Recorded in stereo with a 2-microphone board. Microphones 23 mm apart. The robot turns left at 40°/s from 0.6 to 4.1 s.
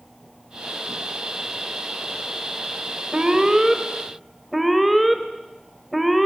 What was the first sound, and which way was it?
An alarm, 140° right.